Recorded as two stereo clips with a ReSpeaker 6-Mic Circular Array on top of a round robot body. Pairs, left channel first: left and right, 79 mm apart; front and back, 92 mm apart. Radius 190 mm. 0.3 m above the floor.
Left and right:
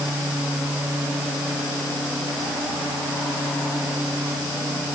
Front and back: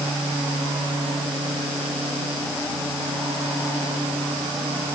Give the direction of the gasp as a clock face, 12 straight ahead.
No gasp in this recording.